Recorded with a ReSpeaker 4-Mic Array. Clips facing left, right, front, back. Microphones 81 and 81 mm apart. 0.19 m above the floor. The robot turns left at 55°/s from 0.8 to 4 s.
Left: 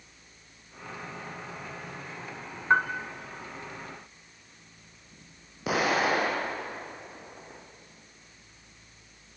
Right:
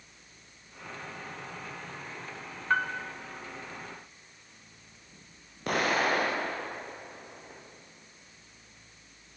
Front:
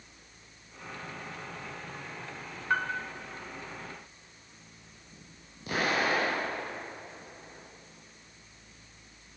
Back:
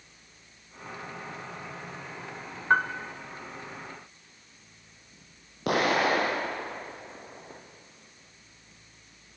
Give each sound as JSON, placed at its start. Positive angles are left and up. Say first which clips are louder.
{"t": 2.7, "sound": "a piano", "louder": "left 4 dB, back 6 dB", "azimuth_deg": 140, "distance_m": 1.2}
{"t": 5.7, "sound": "an explosion", "louder": "left 2 dB, back 5 dB", "azimuth_deg": 175, "distance_m": 4.0}